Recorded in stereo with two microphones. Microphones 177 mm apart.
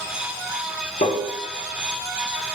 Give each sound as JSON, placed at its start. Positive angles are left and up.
{"t": 1.0, "sound": "tapping", "side_deg": 55, "distance_m": 0.8}